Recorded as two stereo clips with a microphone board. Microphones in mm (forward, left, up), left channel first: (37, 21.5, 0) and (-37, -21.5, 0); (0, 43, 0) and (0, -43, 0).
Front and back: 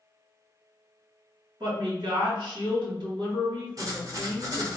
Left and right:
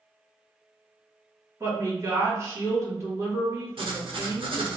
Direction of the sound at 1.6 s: 145° right.